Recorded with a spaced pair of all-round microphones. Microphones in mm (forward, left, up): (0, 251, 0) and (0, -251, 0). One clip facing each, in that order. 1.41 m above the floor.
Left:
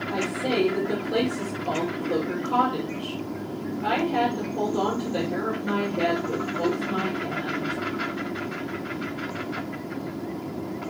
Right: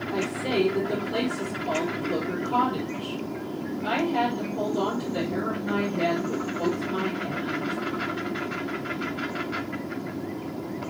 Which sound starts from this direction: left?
A woman speaking, at 0.1 s.